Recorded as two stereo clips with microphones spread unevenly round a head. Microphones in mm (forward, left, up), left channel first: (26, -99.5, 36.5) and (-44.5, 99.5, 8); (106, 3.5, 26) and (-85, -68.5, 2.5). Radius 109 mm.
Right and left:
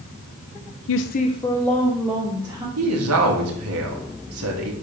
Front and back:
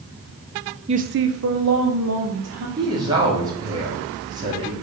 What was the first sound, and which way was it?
A woman speaking, 95° right.